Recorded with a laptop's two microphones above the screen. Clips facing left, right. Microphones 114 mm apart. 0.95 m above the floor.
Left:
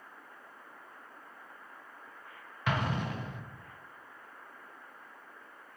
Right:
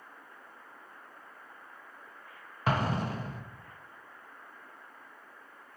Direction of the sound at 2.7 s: 35° right (ahead or behind).